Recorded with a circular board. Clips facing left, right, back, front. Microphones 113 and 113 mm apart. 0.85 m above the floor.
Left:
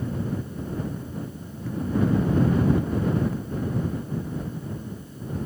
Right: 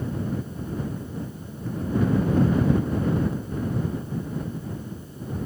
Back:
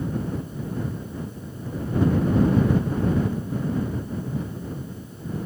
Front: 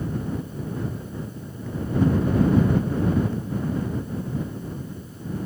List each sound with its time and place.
Only background noise.